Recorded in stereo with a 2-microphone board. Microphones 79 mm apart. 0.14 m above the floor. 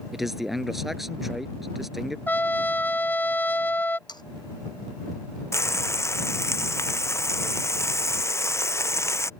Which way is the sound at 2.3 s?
25° left (ahead or behind).